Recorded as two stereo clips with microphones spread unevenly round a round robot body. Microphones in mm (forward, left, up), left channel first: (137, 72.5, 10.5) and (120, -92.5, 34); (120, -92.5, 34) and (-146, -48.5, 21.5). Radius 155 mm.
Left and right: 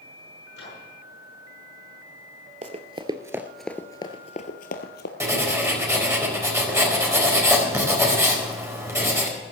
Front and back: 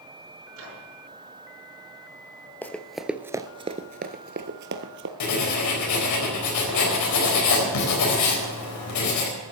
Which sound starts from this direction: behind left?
A microwave, at 0.5 s.